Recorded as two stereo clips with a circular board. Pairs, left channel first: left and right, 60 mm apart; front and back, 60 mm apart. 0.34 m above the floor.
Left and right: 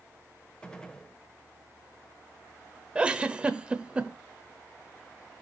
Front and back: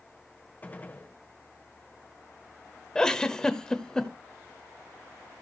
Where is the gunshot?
25° left, 1.1 m.